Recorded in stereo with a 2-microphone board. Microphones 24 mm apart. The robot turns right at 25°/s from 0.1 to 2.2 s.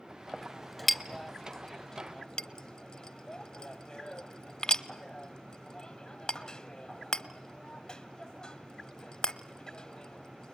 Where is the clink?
10° right (ahead or behind), 0.8 m; by 10.6 s 30° left (ahead or behind), 0.8 m.